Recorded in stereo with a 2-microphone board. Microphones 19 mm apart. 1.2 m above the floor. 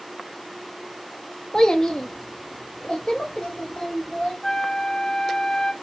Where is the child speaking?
35° left (ahead or behind), 0.6 m; by 4.3 s 55° left (ahead or behind), 3 m.